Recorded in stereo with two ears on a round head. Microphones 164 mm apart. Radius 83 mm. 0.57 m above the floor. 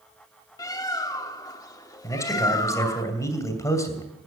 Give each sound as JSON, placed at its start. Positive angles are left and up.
{"t": 0.6, "sound": "a bird", "side_deg": 20, "distance_m": 0.8}
{"t": 2.0, "sound": "a man speaking", "side_deg": 20, "distance_m": 2.5}